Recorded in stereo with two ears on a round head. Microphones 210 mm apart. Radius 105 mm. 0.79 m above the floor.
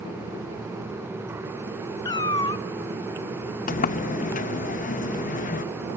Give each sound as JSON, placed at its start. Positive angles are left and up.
{"t": 2.0, "sound": "a cat meowing", "side_deg": 20, "distance_m": 0.6}
{"t": 3.7, "sound": "a sliding door", "side_deg": 35, "distance_m": 0.6}